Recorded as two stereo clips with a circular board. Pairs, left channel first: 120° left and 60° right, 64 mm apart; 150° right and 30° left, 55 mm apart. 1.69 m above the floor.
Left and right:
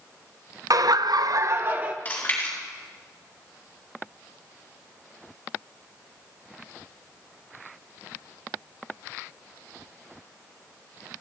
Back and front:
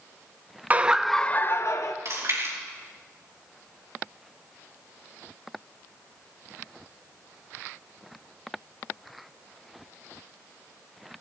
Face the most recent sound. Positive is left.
turn(degrees=55)